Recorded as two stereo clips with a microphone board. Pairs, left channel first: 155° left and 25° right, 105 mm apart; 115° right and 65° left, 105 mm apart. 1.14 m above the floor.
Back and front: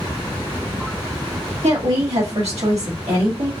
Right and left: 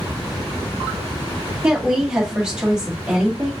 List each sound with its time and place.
1.6 s a woman speaking: 15° right, 1.7 m